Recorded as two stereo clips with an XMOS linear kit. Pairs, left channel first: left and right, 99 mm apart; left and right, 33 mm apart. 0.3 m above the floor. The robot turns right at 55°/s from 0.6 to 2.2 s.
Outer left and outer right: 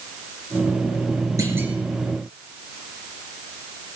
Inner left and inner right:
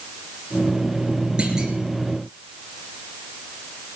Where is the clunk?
35° right (ahead or behind), 3.5 m; by 1.8 s 10° right (ahead or behind), 3.5 m.